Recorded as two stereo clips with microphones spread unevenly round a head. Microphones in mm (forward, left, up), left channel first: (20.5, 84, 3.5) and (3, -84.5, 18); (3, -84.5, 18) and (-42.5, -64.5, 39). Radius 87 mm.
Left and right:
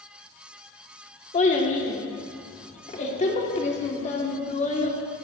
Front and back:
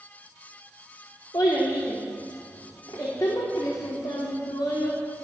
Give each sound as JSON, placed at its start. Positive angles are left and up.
{"t": 1.3, "sound": "a child speaking", "azimuth_deg": 30, "distance_m": 2.5}